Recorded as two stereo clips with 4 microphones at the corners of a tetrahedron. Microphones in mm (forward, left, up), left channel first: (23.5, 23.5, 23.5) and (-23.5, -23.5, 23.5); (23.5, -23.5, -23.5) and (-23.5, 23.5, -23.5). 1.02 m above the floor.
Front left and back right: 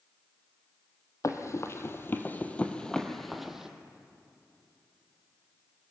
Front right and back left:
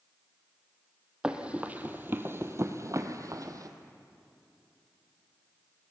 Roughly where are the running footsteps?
Ahead left.